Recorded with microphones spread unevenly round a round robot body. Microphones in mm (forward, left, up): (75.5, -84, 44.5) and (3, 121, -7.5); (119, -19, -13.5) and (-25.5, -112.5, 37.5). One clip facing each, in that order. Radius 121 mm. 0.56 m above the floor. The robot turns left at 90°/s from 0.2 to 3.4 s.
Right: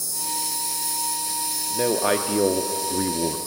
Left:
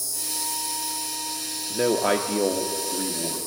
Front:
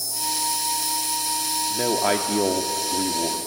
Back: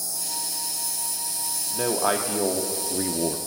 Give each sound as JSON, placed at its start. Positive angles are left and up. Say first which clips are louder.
{"t": 0.0, "sound": "an insect", "louder": "right 2 dB, front 8 dB", "azimuth_deg": 65, "distance_m": 1.8}
{"t": 1.7, "sound": "a man speaking", "louder": "even, front 2 dB", "azimuth_deg": 75, "distance_m": 0.7}